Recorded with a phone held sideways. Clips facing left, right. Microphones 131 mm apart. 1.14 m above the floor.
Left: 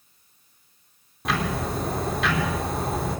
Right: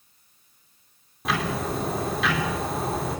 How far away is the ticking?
About 4 m.